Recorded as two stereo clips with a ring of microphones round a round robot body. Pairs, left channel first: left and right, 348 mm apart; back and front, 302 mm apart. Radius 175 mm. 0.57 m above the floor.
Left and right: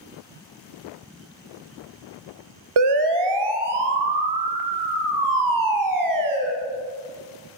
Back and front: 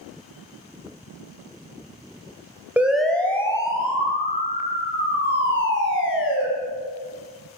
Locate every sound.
2.8 s a siren: 85° right, 3 m; by 6.4 s 125° right, 5.5 m